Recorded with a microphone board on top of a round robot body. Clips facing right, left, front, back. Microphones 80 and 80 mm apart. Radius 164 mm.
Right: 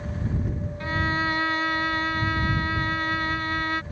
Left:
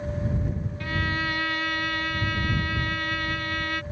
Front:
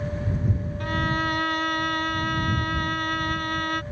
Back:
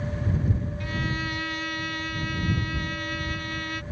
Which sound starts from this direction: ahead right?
A violin, at 0.8 s.